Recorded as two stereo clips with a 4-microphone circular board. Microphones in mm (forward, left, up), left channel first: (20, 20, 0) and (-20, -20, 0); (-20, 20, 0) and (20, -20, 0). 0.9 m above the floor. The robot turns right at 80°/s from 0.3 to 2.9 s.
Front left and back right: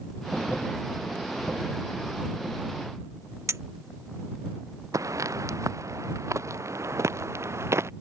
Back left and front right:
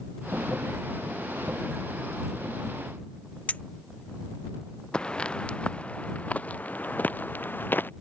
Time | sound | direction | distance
3.5 | a clink | 165° right | ?
4.9 | footsteps | 155° right | ?